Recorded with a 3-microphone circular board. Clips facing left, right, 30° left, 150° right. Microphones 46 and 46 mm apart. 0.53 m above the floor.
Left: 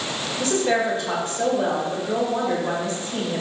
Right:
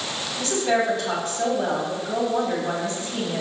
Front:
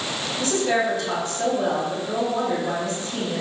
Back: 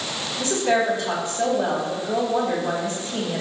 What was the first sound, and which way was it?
A woman speaking, 150° left.